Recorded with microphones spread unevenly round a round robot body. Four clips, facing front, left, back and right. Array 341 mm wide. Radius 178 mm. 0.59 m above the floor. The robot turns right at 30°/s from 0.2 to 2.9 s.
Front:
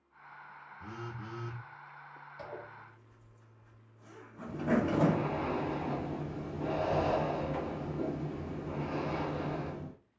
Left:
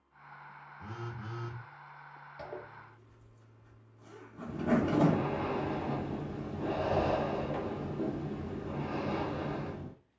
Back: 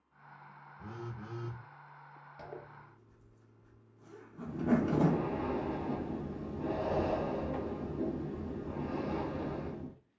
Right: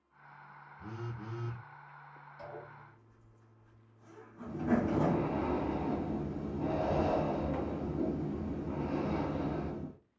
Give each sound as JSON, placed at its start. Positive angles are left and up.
{"t": 0.8, "sound": "a phone buzzing", "azimuth_deg": -170, "distance_m": 0.7}
{"t": 2.4, "sound": "a zipper", "azimuth_deg": 145, "distance_m": 0.8}
{"t": 4.5, "sound": "breathing", "azimuth_deg": -115, "distance_m": 1.5}